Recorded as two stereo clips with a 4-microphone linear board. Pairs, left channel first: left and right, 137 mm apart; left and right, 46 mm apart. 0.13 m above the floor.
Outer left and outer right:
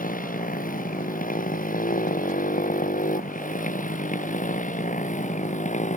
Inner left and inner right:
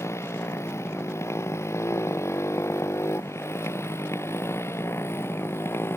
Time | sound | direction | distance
0.0 | a motorcycle | 85° left | ?